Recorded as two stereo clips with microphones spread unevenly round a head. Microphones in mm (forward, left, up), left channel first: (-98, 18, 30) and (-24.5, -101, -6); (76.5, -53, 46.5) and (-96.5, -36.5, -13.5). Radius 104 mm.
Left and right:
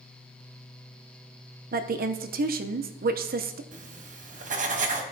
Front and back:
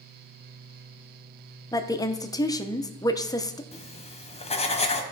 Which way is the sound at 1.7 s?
70° right.